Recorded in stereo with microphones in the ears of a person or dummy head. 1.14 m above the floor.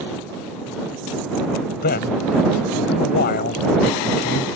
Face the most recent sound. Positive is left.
turn(degrees=55)  # may be behind; listen again after turning